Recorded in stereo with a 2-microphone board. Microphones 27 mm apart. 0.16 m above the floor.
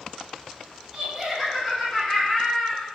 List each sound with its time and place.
0.9 s laughter: 10° right (ahead or behind), 1.6 m; by 2.9 s 35° left (ahead or behind), 1.9 m